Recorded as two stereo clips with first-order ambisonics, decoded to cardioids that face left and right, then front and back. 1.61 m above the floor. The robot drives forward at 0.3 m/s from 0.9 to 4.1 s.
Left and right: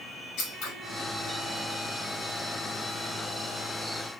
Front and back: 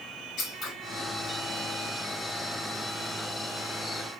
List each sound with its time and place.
0.4 s scissors: 55° left, 1.7 m